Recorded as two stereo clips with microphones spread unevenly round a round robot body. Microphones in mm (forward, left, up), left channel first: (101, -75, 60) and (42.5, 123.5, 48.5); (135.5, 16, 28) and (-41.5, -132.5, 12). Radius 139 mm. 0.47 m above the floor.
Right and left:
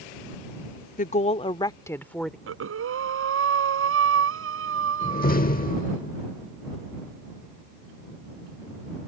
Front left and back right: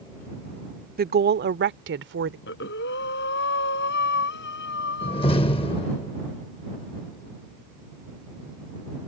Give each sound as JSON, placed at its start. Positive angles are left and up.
{"t": 1.0, "sound": "a woman speaking", "azimuth_deg": -115}
{"t": 2.5, "sound": "breathing", "azimuth_deg": 95}
{"t": 5.0, "sound": "a door slam", "azimuth_deg": -30}